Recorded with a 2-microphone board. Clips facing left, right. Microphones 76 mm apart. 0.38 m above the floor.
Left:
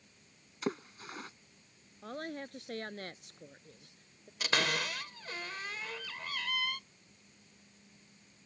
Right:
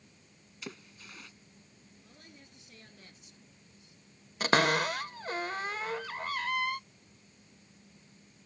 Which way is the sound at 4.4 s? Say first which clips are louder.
Right 7 dB; 40° right (ahead or behind).